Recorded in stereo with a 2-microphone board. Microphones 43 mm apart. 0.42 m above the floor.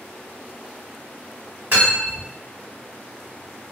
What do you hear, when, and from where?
1.7 s cutlery clinking: 55° right (ahead or behind), 1.4 m